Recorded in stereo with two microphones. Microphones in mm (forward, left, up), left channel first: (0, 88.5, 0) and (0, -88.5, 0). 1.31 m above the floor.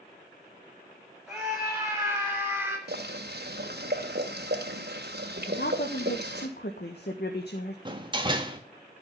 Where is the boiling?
70° right (ahead or behind), 2 m.